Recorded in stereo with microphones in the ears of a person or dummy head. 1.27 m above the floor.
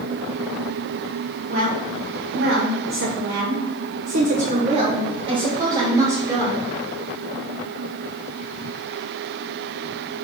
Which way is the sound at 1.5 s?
40° right (ahead or behind).